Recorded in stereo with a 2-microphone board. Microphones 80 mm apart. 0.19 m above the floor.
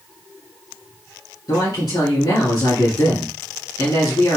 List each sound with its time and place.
1.5 s a man speaking: 55° left (ahead or behind), 2 m